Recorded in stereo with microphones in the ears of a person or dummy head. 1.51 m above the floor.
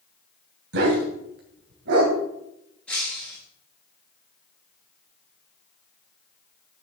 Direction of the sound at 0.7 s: 65° right (ahead or behind).